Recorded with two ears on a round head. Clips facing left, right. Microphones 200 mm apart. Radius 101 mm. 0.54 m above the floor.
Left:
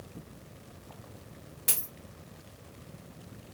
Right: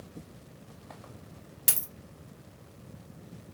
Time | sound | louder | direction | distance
1.7 | a dropped coin | left 1 dB | 45° right (ahead or behind) | 0.5 m